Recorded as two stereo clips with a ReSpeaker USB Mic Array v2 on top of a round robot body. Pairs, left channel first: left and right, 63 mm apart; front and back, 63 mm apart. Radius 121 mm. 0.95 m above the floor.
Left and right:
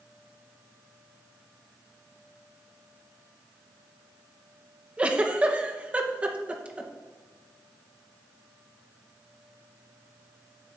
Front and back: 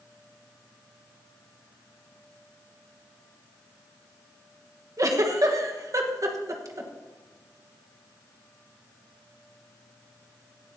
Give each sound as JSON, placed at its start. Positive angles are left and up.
{"t": 5.0, "sound": "a giggle", "azimuth_deg": -155, "distance_m": 1.3}